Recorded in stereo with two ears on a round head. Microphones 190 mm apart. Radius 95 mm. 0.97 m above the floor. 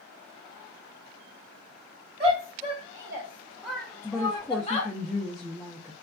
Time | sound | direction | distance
2.2 | a shout | 25° right (ahead or behind) | 1.5 m
4.0 | a woman speaking | centre (ahead or behind) | 0.6 m